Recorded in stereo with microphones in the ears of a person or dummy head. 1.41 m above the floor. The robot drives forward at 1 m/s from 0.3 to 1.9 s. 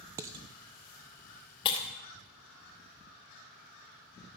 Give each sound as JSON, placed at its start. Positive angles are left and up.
{"t": 0.2, "sound": "dishes clattering", "side_deg": -20, "distance_m": 0.5}
{"t": 1.6, "sound": "breaking glass", "side_deg": 25, "distance_m": 2.5}